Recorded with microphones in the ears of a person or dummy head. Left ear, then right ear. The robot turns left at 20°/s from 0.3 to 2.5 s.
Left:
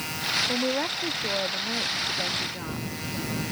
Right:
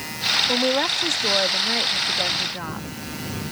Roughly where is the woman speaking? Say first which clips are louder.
Right 6 dB; right.